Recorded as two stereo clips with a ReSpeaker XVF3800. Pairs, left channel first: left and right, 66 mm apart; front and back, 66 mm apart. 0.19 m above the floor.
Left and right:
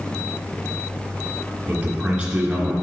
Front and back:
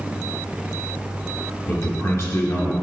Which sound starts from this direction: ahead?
A man speaking, at 1.7 s.